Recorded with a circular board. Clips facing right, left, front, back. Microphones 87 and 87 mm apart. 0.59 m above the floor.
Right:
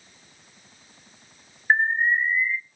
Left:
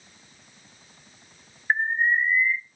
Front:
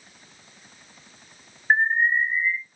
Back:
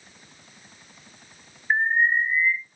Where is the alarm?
20° right, 1.3 m.